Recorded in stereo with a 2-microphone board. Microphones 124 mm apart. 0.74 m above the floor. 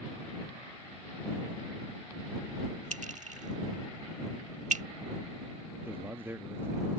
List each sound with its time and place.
2.9 s a clink: 75° right (ahead or behind)
5.8 s a man speaking: 20° right (ahead or behind)